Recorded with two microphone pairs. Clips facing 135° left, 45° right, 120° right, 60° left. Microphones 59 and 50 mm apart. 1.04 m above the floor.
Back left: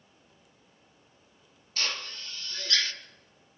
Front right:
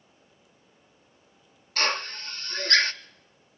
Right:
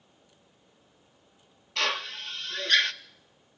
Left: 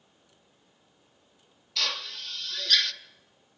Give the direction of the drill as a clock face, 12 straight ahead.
2 o'clock.